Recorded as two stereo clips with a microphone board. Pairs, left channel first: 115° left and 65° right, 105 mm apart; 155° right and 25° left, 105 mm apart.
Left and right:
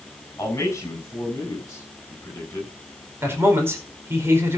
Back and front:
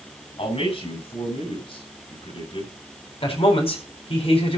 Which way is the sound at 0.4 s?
Straight behind.